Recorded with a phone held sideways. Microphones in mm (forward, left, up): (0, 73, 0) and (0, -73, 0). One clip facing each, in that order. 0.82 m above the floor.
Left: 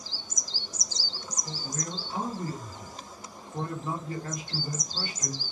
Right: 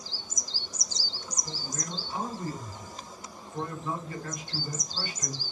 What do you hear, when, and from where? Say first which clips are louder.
1.4 s a man speaking: left 3 dB; 40° left (ahead or behind), 1.8 m